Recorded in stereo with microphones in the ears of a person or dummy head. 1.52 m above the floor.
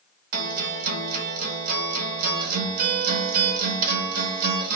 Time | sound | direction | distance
0.3 | a guitar | 50° right (ahead or behind) | 1.0 m